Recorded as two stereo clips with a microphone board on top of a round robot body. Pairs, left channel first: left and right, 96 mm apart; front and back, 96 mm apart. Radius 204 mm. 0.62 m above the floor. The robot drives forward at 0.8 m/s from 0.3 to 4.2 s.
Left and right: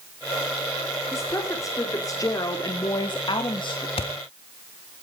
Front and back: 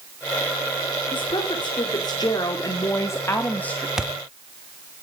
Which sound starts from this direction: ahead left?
A woman speaking, at 1.1 s.